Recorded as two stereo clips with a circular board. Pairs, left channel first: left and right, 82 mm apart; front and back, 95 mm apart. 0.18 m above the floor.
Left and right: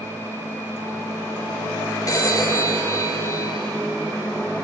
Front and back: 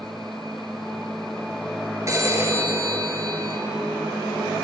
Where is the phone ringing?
130° left, 2 m.